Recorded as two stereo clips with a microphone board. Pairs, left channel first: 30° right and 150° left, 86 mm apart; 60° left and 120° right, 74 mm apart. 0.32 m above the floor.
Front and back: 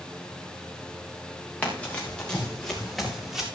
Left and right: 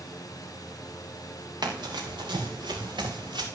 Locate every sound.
1.6 s running footsteps: 100° right, 3 m; by 3.5 s 125° right, 3.5 m